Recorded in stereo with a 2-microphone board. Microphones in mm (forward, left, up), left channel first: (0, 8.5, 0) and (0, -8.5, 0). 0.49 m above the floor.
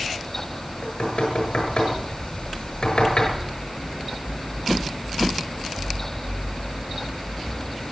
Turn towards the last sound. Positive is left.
turn(degrees=85)